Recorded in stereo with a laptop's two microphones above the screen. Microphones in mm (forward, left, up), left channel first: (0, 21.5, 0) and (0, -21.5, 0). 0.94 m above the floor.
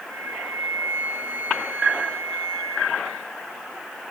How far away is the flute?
About 2 m.